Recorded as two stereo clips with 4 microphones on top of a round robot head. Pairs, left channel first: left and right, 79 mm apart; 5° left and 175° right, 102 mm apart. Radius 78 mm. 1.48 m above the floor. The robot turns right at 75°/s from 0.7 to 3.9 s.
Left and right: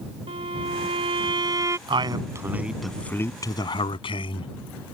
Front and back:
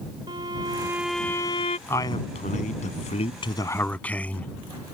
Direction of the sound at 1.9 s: 70° right.